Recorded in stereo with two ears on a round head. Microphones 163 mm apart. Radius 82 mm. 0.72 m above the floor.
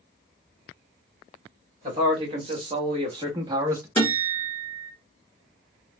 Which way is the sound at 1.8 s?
35° right (ahead or behind).